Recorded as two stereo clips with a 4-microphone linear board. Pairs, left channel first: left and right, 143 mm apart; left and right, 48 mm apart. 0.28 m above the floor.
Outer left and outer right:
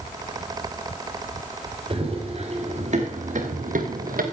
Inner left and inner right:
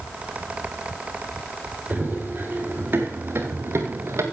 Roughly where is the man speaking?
No man speaking in this recording.